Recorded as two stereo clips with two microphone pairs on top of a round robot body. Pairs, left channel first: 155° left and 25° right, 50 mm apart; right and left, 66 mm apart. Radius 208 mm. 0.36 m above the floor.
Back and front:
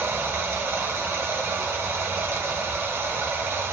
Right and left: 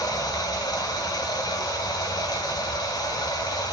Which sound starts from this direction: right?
Running water, at 0.0 s.